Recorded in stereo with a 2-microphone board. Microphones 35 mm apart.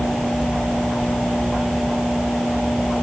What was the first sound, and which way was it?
A sliding door, 80° left.